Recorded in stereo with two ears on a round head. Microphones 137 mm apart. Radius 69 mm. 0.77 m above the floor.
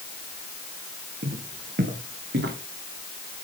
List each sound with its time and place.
1.2 s footsteps: 60° right (ahead or behind), 3.5 m; by 2.6 s 75° right (ahead or behind), 4 m